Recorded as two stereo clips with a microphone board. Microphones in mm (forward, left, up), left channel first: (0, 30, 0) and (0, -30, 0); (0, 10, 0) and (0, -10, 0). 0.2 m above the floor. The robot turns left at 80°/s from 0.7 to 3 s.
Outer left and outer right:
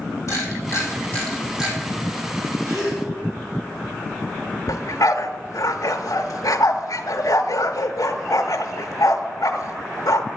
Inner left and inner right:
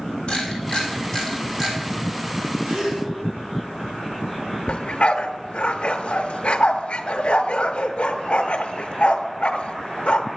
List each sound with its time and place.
0.3 s a camera shutter: 60° left (ahead or behind), 3 m; by 1.8 s 25° right (ahead or behind), 3 m
2.6 s a gasp: 80° right, 4 m; by 3.0 s 50° right (ahead or behind), 4 m
4.7 s a dog barking: 80° left, 0.7 m